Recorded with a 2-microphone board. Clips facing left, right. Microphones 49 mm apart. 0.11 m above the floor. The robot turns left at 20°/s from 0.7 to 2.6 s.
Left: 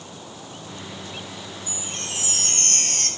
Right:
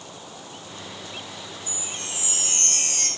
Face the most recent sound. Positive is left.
turn(degrees=55)  # may be behind; listen again after turning